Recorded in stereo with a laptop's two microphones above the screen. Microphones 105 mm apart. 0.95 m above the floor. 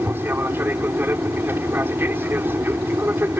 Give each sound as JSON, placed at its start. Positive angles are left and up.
{"t": 0.0, "sound": "an aircraft", "side_deg": -20}